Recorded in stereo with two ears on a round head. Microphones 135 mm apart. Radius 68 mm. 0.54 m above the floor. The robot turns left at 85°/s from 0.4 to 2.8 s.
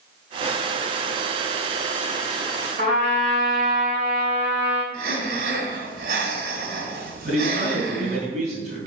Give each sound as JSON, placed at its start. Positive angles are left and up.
{"t": 2.8, "sound": "a trumpet", "side_deg": -45, "distance_m": 5.5}
{"t": 4.9, "sound": "breathing", "side_deg": -70, "distance_m": 2.5}
{"t": 7.2, "sound": "a man speaking", "side_deg": -50, "distance_m": 3.5}